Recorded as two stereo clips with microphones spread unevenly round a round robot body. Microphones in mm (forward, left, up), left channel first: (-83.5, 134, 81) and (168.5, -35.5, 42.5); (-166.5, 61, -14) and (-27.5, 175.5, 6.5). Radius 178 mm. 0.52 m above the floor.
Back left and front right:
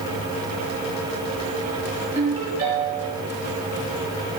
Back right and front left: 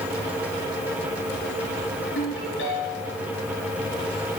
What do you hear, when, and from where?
2.1 s a ringtone: 110° right, 4.5 m